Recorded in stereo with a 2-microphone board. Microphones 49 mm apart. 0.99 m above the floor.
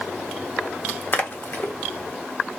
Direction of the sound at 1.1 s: 40° left (ahead or behind).